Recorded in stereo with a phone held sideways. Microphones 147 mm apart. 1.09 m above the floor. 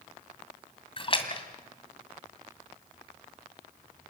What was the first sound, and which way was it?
A splash, 35° left (ahead or behind).